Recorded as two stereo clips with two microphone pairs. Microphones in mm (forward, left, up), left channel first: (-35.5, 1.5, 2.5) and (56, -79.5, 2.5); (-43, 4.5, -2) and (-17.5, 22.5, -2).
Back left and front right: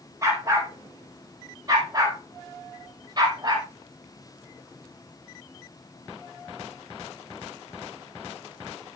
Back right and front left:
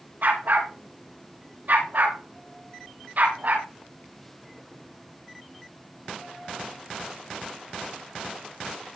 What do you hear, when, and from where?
0.2 s a dog barking: 20° left, 8 m; by 3.7 s 15° left, 9.5 m